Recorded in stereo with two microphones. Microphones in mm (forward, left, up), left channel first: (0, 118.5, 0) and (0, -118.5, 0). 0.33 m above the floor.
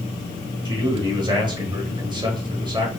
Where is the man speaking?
20° right (ahead or behind), 1.5 m.